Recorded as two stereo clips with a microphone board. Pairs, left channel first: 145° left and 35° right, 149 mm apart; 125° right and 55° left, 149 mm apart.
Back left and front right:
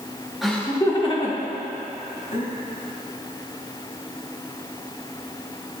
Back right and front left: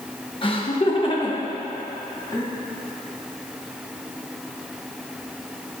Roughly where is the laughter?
Behind right.